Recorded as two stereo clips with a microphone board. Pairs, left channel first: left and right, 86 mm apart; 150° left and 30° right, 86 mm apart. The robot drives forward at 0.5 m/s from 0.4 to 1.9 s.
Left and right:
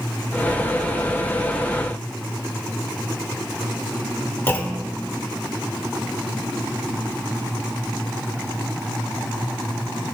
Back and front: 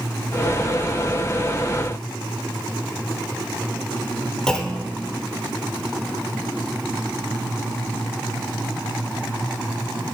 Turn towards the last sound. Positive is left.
turn(degrees=80)